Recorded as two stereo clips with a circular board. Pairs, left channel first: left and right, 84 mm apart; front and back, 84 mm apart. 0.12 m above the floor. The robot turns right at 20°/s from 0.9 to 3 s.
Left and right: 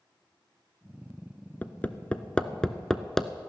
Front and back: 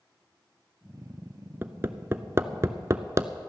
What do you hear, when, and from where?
1.6 s hammering: 140° left, 0.6 m; by 3.3 s 170° left, 0.6 m